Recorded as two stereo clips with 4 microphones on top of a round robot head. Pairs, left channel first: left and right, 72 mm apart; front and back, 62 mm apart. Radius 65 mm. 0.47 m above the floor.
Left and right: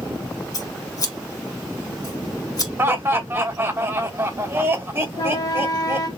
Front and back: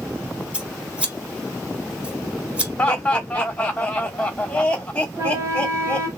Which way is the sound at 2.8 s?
60° right.